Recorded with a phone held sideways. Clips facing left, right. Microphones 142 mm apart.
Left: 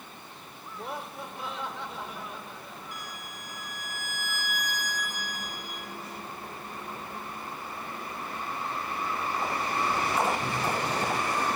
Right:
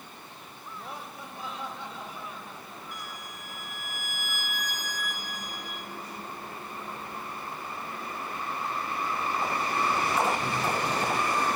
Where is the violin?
40° left (ahead or behind), 4 m.